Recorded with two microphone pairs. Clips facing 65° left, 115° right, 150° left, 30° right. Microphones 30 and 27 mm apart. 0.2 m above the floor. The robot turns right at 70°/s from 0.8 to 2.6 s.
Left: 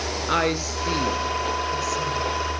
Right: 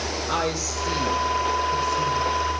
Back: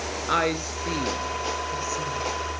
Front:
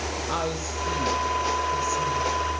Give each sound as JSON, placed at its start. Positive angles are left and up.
{"t": 0.3, "sound": "a woman speaking", "azimuth_deg": 120, "distance_m": 3.0}